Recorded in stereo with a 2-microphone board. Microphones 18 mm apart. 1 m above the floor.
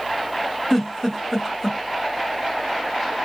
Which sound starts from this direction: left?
A giggle, at 0.7 s.